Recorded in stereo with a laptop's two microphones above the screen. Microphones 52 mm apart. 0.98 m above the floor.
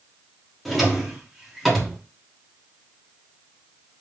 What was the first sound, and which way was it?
A drawer, centre (ahead or behind).